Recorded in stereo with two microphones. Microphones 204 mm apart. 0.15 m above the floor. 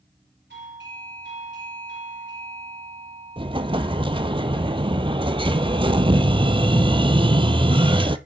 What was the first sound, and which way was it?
A doorbell, 70° right (ahead or behind).